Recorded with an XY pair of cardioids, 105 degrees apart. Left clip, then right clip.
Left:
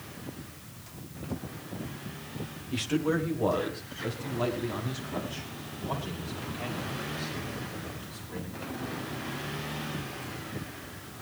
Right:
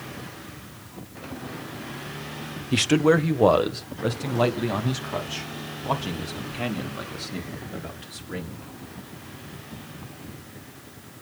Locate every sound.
2.7 s a man speaking: 70° right, 0.9 m